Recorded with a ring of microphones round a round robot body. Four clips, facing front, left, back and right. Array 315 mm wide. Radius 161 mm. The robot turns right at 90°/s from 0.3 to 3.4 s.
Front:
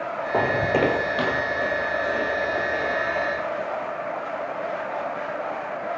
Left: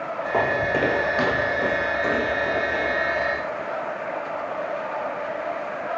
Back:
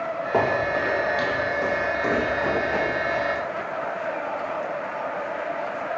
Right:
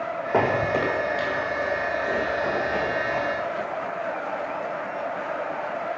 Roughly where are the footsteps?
Behind right.